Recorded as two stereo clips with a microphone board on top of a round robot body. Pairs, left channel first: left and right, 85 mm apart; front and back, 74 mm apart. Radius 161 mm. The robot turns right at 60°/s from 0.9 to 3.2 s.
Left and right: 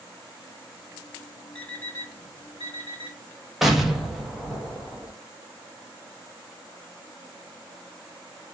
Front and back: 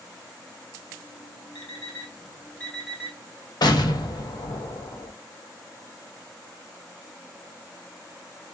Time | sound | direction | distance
1.6 | an alarm clock | 10° left | 1.9 m
3.6 | an explosion | straight ahead | 1.3 m